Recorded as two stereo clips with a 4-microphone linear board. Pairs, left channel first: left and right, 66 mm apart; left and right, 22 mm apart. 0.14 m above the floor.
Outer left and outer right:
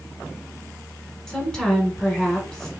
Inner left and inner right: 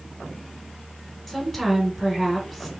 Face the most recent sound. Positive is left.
turn(degrees=10)  # may be behind; listen again after turning